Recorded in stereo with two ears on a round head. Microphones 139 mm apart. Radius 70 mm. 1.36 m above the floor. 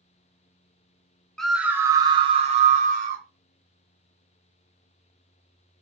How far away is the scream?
About 0.7 m.